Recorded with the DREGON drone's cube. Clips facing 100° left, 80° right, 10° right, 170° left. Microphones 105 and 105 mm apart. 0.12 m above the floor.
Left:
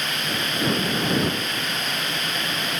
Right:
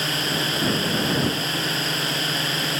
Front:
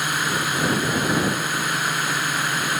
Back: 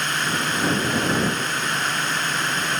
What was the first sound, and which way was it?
A drone, 85° right.